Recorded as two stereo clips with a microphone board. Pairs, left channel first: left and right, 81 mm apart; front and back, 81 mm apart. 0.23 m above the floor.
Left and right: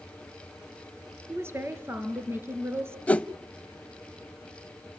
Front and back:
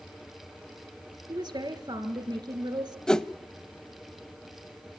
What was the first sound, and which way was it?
A woman speaking, 150° right.